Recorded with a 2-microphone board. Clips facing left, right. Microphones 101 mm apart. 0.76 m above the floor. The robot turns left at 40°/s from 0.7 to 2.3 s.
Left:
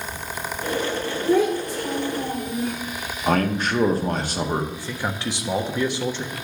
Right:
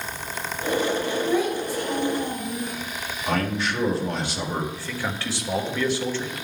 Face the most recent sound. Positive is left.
turn(degrees=20)  # may be behind; listen again after turning